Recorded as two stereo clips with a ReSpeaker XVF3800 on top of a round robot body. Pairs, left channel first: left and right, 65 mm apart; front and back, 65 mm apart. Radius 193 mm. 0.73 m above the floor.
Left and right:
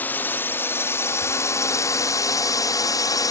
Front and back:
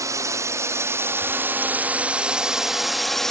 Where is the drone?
150° left; by 3.3 s 85° left.